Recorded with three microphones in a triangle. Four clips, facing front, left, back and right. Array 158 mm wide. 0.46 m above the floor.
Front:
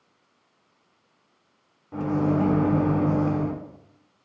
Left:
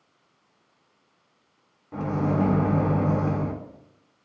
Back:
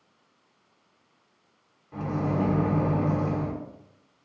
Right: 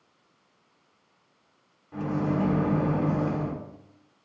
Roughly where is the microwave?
Ahead left.